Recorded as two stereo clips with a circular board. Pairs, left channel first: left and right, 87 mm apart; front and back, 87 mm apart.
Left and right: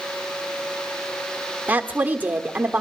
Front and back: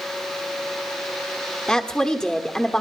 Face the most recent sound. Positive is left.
turn(degrees=-65)